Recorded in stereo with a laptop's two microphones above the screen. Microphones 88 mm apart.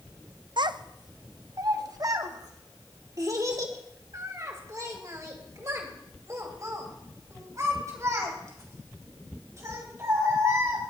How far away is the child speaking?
About 0.5 m.